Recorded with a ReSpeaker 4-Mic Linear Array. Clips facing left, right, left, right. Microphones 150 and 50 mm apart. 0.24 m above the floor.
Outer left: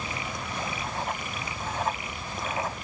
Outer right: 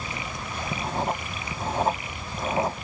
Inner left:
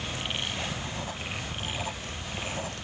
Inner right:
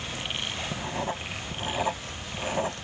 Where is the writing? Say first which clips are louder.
Outer right 5 dB, inner right 4 dB; 35° right (ahead or behind).